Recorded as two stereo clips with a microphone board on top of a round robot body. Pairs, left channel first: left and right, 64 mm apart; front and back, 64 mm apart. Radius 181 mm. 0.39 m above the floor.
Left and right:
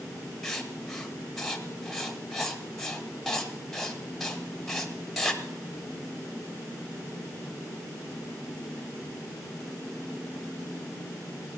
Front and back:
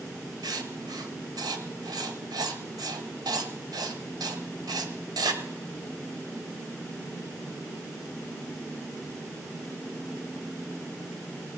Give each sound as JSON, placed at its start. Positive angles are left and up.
{"t": 0.4, "sound": "writing", "azimuth_deg": 175, "distance_m": 1.2}